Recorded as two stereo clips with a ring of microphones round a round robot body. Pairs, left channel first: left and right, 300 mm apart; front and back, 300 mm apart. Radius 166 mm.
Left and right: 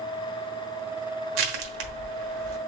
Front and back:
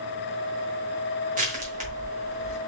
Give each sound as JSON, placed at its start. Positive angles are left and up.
{"t": 1.4, "sound": "crushing", "azimuth_deg": -110, "distance_m": 1.2}